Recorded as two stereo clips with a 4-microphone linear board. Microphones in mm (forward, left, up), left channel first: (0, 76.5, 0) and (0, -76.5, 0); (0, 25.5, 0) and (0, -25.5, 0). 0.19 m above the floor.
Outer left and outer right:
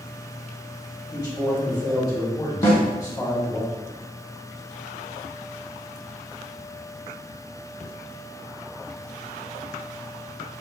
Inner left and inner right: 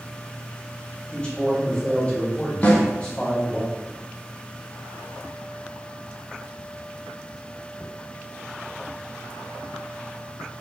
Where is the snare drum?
40° left (ahead or behind), 1.0 m.